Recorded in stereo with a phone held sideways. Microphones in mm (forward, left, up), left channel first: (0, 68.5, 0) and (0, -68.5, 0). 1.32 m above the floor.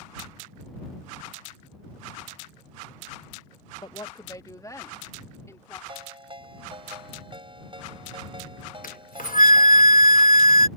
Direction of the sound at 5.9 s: 40° right (ahead or behind).